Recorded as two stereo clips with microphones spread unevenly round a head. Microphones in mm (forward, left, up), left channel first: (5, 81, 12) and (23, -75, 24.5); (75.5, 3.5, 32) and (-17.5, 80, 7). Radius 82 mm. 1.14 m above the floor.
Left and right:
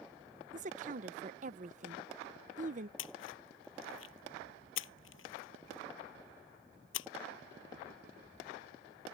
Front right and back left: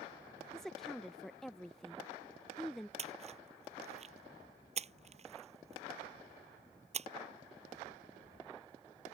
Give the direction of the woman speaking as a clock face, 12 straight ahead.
4 o'clock.